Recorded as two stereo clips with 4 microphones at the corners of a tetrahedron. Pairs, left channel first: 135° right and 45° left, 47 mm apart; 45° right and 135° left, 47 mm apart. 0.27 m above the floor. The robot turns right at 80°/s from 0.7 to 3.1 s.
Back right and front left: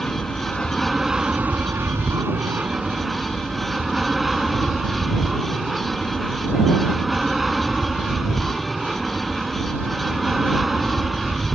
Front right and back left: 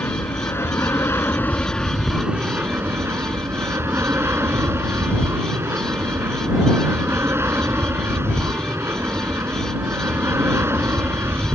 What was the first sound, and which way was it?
An aircraft, 60° right.